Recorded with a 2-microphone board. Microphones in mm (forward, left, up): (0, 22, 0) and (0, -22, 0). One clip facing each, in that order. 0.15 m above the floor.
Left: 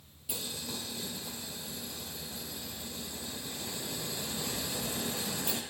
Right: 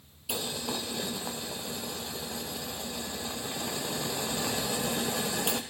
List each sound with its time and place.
0.3 s boiling: 80° right, 1.1 m